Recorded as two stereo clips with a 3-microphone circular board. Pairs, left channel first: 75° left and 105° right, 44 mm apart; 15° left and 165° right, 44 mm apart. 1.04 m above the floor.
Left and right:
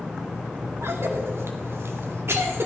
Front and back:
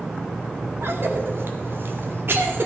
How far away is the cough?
About 2 m.